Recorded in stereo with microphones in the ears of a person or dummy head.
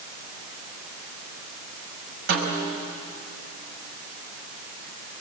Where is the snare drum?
45° right (ahead or behind), 5.5 m.